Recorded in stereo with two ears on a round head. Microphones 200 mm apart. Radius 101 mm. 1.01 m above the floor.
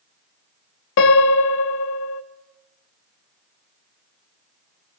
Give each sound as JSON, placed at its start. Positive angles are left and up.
{"t": 1.0, "sound": "a piano", "side_deg": 60, "distance_m": 0.5}